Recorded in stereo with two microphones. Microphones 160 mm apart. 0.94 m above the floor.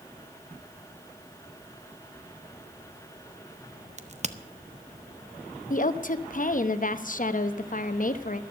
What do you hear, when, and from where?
4.0 s a crack: 45° right (ahead or behind), 0.7 m
5.7 s a woman speaking: 55° left (ahead or behind), 0.9 m